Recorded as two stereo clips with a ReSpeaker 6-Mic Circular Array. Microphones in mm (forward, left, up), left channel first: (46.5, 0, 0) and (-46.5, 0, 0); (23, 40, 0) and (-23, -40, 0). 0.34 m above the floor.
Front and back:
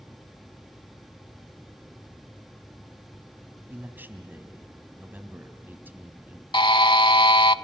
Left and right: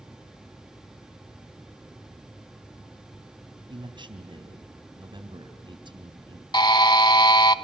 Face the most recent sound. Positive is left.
turn(degrees=25)